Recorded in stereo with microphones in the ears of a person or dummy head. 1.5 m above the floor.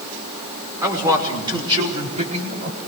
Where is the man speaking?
10° right (ahead or behind), 5.5 m; by 2.8 s 45° right (ahead or behind), 4 m.